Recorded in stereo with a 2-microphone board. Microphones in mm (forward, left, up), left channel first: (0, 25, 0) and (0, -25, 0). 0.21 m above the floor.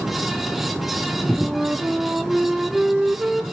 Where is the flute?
10° right (ahead or behind), 1.4 m.